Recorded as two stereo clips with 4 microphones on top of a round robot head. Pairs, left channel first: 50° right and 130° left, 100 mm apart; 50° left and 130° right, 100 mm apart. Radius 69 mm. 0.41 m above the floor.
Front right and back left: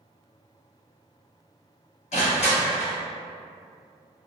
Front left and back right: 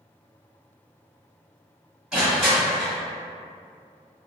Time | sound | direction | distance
2.1 | crushing | 45° right | 1.4 m